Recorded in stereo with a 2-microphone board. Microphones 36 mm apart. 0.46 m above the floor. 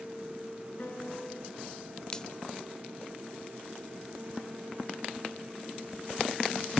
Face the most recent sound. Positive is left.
turn(degrees=20)  # may be behind; listen again after turning